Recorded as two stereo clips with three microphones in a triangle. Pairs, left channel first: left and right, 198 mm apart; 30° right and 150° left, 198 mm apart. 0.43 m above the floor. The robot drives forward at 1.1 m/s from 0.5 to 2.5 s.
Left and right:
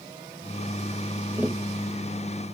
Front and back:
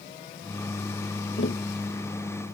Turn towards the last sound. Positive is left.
turn(degrees=-10)